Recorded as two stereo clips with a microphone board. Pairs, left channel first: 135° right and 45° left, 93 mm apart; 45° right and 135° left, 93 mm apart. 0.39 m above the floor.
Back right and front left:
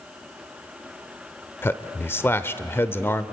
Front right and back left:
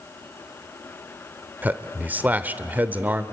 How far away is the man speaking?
About 0.8 m.